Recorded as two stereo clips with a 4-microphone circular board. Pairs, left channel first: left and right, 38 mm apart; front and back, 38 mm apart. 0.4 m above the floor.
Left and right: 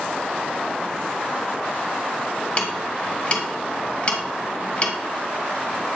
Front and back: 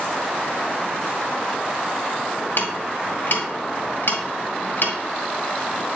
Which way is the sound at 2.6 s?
35° left.